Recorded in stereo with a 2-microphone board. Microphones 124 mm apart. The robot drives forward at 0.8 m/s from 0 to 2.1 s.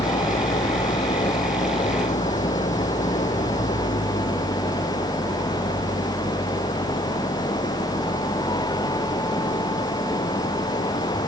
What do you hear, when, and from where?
0.0 s an engine running: 80° left; by 11.3 s 70° left (ahead or behind)